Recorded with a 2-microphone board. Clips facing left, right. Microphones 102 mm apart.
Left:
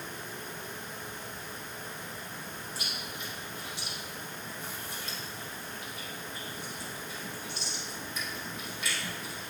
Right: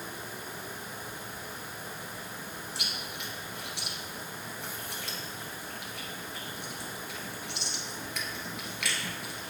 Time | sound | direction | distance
2.8 | chewing | 80° right | 1.6 m